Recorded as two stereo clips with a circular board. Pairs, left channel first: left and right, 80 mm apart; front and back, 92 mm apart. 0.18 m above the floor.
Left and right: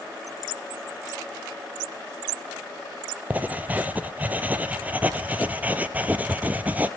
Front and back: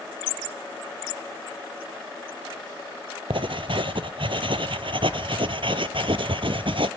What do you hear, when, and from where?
3.3 s writing: 160° right, 0.6 m